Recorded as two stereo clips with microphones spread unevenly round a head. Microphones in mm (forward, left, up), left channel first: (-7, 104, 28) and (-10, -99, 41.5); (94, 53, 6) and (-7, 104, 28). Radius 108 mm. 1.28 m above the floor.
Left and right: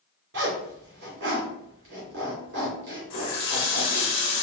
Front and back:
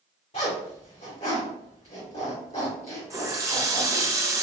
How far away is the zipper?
About 1.8 m.